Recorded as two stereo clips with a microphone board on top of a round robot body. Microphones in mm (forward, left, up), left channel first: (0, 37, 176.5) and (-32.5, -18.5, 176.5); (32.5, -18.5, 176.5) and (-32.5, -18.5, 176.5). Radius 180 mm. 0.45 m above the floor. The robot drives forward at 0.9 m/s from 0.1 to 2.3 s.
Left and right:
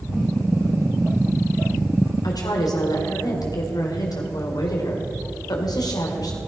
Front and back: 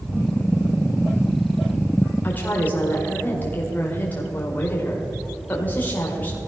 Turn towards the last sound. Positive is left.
turn(degrees=60)